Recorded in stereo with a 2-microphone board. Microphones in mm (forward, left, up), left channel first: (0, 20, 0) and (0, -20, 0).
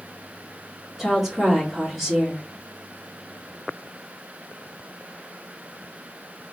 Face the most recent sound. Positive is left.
turn(degrees=-5)  # may be behind; listen again after turning